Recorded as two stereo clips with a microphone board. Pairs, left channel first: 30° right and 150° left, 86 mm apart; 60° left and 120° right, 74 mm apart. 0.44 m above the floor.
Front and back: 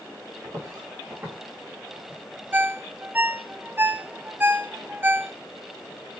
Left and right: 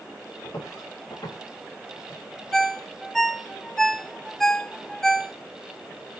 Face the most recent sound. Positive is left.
turn(degrees=140)